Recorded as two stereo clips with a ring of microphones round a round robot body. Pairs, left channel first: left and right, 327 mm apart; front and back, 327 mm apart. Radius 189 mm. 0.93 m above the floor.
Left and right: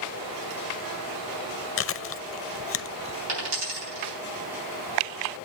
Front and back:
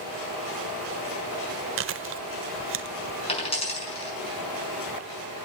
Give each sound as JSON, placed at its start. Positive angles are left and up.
{"t": 1.8, "sound": "chewing", "azimuth_deg": 135, "distance_m": 0.7}
{"t": 3.3, "sound": "a dropped coin", "azimuth_deg": -75, "distance_m": 6.0}